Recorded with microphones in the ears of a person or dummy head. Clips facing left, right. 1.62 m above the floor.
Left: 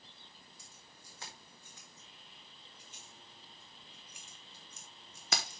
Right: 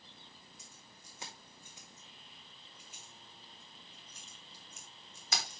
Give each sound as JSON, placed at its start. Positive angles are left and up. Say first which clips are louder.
{"t": 0.6, "sound": "keys jangling", "louder": "right 1 dB", "side_deg": -20, "distance_m": 4.0}